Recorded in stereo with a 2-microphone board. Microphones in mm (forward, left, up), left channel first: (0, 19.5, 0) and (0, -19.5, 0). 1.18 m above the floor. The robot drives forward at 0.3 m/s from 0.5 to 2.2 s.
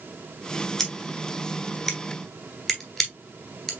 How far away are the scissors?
About 1.9 m.